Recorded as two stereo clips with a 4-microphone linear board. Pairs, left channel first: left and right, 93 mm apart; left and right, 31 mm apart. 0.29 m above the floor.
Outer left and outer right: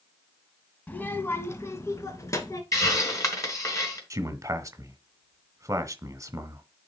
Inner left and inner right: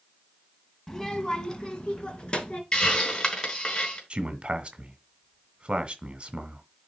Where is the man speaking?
35° right (ahead or behind), 1.1 m.